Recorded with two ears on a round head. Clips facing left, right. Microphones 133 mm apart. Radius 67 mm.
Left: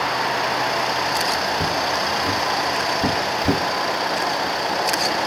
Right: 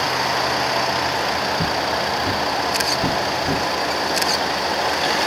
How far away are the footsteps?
About 3 m.